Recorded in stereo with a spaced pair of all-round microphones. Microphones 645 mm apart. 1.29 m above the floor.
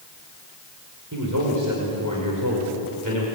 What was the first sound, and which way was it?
A man speaking, 30° right (ahead or behind).